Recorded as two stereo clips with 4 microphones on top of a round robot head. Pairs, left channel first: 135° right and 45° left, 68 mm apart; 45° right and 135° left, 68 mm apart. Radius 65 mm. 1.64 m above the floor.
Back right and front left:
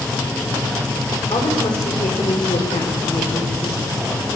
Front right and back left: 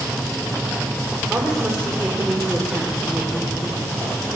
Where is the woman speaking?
140° right, 5.5 m.